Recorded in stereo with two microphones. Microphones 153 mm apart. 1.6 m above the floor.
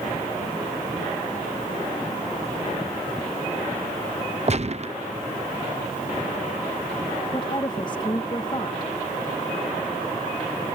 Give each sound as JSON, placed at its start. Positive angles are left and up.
{"t": 4.5, "sound": "a gunshot", "side_deg": -45}
{"t": 7.3, "sound": "a woman speaking", "side_deg": 30}